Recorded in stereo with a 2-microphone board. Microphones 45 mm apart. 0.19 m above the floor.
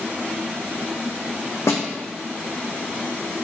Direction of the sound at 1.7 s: 80° left.